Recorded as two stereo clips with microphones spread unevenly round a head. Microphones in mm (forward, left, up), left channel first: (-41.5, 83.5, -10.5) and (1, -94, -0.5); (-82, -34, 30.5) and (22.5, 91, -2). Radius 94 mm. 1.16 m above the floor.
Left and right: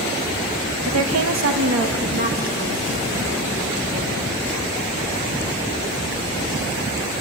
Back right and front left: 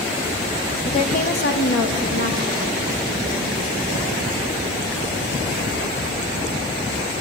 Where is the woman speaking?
60° right, 1.3 m; by 4.2 s 130° right, 4.5 m.